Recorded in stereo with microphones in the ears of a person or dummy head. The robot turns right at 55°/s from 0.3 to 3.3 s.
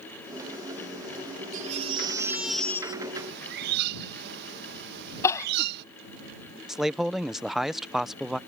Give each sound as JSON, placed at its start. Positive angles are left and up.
{"t": 1.5, "sound": "a baby crying", "azimuth_deg": -50}
{"t": 3.1, "sound": "a bird", "side_deg": -65}
{"t": 5.2, "sound": "crying", "side_deg": 20}
{"t": 6.7, "sound": "a man speaking", "side_deg": 0}